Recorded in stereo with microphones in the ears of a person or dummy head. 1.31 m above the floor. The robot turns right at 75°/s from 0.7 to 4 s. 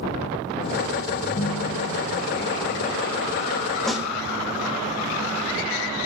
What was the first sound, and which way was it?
A ringtone, 25° left.